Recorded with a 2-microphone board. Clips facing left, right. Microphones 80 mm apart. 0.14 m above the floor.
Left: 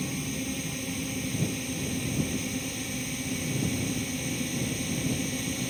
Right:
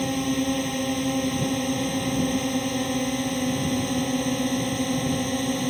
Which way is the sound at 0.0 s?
60° right (ahead or behind).